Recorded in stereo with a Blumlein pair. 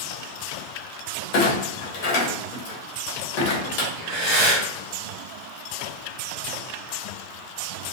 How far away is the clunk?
About 1.0 m.